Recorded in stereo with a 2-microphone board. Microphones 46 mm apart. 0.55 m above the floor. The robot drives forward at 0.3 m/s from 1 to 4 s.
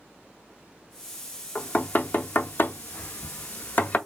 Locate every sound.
1.6 s knocking: 35° left (ahead or behind), 0.6 m; by 4.0 s 40° left (ahead or behind), 0.6 m